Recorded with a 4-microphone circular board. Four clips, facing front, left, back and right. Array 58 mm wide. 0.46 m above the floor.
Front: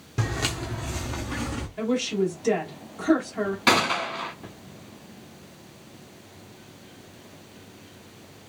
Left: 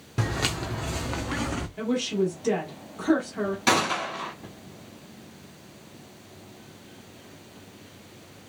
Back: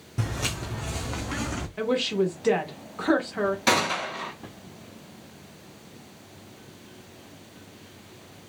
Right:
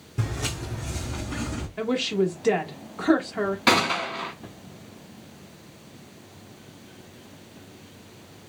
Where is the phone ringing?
I don't hear a phone ringing.